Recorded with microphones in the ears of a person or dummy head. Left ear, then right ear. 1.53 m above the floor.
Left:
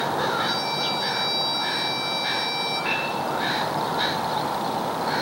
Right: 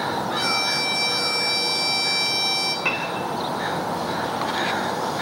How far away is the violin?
About 4.5 m.